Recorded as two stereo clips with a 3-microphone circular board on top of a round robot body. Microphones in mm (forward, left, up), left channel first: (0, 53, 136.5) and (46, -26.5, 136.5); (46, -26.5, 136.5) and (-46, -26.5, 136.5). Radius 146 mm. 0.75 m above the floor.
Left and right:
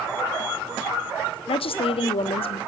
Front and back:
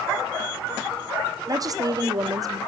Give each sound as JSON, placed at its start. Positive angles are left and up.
{"t": 1.5, "sound": "a woman speaking", "azimuth_deg": 130, "distance_m": 1.5}